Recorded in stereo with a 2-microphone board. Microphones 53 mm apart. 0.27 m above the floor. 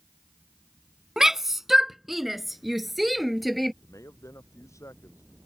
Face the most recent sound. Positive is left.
turn(degrees=85)